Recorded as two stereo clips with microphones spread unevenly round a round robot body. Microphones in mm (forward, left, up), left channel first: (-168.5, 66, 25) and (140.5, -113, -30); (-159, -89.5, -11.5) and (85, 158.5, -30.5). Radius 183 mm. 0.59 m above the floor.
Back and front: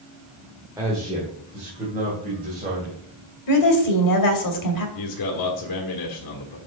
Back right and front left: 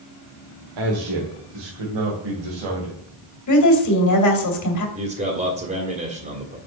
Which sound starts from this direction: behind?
A woman speaking, at 3.5 s.